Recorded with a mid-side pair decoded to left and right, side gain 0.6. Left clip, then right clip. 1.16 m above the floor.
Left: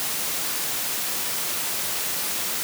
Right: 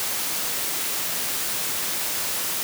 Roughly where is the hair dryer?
I don't hear a hair dryer.